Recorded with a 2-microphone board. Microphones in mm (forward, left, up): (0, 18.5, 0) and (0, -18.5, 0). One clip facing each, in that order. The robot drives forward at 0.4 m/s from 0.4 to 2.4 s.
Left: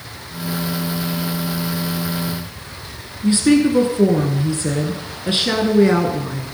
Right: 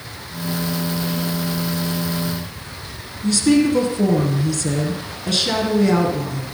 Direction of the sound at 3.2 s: 25° left (ahead or behind).